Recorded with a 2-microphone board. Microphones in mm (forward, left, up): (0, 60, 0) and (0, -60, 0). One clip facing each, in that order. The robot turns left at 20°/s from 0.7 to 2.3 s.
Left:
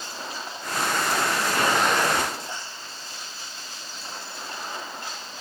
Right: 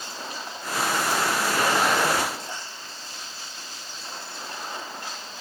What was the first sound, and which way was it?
Only background noise.